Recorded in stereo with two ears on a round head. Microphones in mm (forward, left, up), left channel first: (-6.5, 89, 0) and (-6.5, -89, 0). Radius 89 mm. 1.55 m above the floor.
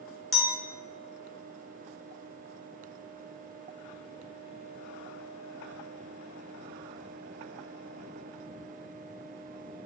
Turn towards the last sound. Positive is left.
turn(degrees=0)  # may be behind; listen again after turning